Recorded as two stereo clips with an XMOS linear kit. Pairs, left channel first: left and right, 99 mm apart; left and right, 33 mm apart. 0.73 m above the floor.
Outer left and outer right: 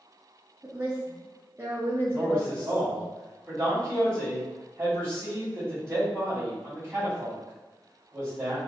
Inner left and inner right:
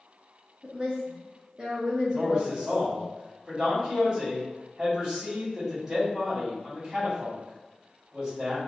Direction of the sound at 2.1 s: 15° right (ahead or behind).